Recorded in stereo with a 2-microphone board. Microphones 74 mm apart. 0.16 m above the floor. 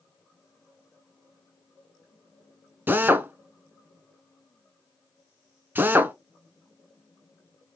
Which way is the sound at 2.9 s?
25° right (ahead or behind).